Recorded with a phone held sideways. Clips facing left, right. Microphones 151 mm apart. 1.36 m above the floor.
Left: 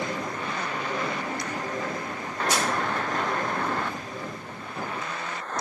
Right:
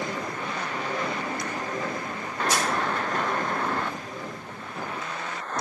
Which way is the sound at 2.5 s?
75° left (ahead or behind).